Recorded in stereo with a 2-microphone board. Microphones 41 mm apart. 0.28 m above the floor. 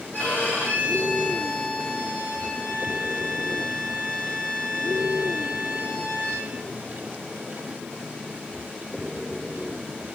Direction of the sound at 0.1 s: 50° left (ahead or behind).